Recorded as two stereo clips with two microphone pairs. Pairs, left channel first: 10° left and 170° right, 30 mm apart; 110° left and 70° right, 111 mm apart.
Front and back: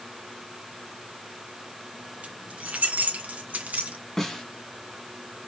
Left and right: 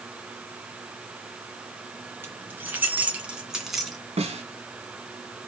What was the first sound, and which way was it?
Keys jangling, 140° right.